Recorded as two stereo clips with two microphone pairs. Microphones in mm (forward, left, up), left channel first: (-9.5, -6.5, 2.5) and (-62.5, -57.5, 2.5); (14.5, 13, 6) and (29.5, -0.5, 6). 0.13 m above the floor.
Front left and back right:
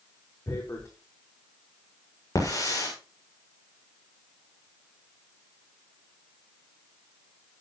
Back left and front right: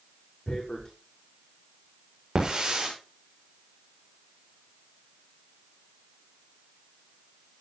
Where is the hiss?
10° left, 7 m.